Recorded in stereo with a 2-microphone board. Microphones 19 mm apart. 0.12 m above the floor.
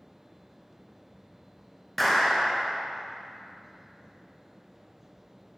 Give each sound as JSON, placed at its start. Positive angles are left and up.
{"t": 2.0, "sound": "a clap", "side_deg": 5, "distance_m": 1.0}